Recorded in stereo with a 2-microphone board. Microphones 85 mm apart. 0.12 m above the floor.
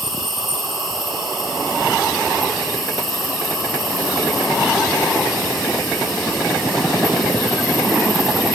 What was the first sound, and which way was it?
An insect, centre (ahead or behind).